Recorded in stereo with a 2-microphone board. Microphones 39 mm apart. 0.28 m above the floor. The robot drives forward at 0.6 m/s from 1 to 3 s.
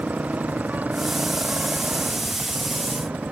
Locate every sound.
0.0 s a motorcycle: 40° right (ahead or behind)